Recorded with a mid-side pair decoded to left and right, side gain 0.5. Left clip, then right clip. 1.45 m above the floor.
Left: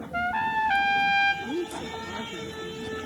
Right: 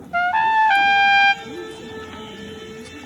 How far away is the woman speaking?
About 2.5 m.